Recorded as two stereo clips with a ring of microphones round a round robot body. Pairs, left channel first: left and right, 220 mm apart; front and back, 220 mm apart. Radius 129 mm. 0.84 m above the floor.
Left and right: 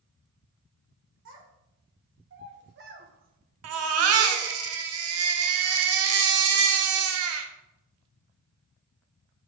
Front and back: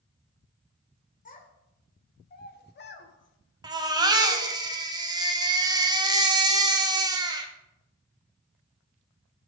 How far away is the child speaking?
About 2 m.